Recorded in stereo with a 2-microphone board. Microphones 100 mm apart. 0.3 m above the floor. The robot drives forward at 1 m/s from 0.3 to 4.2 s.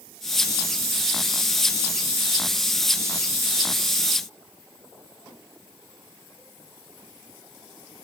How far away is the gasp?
No gasp in this recording.